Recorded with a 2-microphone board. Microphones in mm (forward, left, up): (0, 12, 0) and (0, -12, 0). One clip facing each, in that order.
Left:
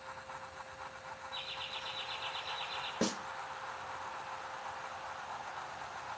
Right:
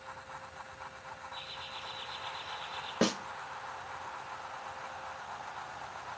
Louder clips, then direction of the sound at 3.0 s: Right 6 dB; 45° right (ahead or behind).